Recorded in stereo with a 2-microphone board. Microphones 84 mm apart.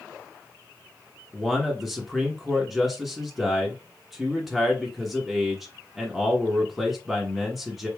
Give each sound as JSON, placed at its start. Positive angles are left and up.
{"t": 1.3, "sound": "a man speaking", "side_deg": 0, "distance_m": 1.0}